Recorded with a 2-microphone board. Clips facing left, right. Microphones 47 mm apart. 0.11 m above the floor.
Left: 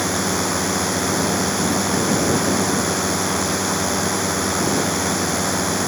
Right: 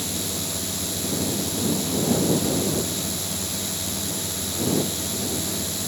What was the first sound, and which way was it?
A drone, 60° left (ahead or behind).